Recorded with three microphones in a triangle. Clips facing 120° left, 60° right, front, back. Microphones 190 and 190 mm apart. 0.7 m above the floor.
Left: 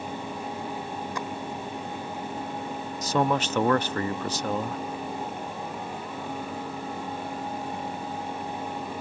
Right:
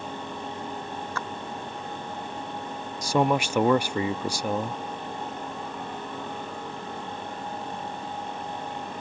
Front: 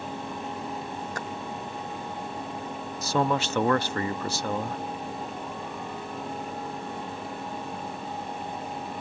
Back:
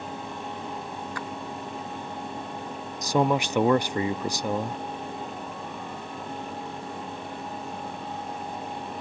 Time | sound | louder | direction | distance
1.1 | a splash | left 2 dB, even | 45° left | ?
3.0 | a man speaking | right 2 dB, back 3 dB | 125° right | ?